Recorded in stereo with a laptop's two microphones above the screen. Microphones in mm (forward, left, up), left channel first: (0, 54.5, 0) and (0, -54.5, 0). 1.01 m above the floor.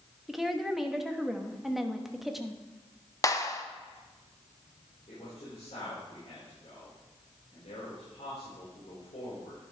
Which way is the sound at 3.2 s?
30° left (ahead or behind).